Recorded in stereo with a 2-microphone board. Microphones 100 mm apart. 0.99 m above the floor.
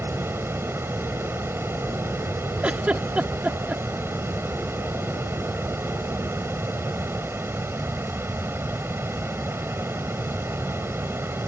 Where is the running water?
25° right (ahead or behind).